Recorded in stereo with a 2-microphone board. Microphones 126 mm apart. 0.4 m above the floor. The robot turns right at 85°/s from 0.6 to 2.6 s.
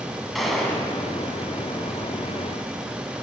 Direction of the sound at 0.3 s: Centre (ahead or behind).